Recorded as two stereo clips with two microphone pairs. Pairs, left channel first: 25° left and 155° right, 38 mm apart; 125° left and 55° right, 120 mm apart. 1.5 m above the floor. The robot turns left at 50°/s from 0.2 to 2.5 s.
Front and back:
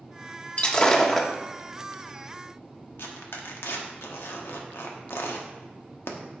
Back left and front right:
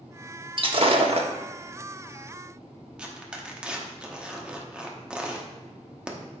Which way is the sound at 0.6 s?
20° right.